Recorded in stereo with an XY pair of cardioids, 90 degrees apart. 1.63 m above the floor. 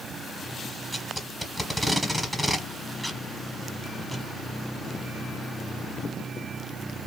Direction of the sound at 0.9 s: Straight ahead.